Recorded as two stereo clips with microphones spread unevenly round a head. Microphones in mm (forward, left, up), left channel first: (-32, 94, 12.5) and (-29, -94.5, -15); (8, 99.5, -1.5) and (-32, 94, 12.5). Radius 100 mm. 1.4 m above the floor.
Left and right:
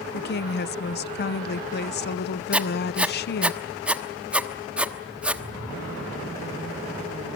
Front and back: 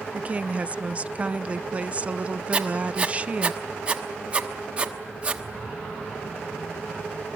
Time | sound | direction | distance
0.1 | a woman speaking | 130° left | 0.8 m
2.5 | writing | straight behind | 1.1 m